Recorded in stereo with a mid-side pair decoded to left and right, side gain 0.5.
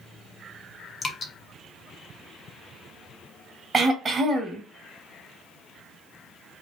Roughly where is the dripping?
Ahead left.